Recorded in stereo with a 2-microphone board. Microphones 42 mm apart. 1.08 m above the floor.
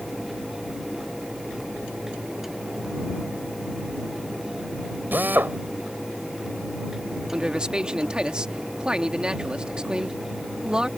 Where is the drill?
50° right (ahead or behind).